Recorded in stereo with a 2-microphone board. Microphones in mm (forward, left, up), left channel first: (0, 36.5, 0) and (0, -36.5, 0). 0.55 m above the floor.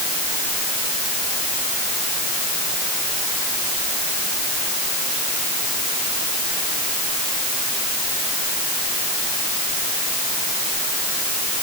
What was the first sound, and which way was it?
Only background noise.